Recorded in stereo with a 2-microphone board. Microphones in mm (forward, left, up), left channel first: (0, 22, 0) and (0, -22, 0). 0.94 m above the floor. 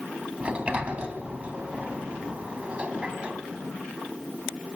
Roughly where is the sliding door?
Right.